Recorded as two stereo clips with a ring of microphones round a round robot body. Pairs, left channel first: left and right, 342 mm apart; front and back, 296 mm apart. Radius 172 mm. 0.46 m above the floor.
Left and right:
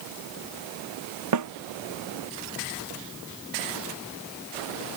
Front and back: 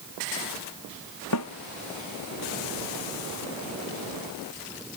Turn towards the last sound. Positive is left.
turn(degrees=-50)